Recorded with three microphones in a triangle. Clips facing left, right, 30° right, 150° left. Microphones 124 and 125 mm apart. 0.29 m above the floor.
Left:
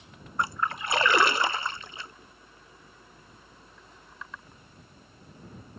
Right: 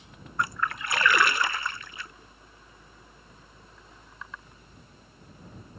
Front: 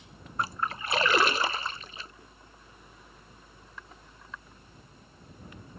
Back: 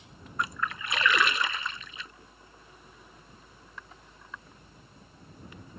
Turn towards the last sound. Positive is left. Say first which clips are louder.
# left 1 dB, front 1 dB
turn(degrees=25)